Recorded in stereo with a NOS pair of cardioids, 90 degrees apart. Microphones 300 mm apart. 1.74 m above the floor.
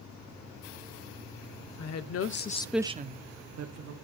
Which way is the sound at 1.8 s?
65° left.